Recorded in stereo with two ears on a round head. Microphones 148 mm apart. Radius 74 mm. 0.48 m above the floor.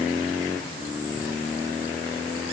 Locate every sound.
Only background noise.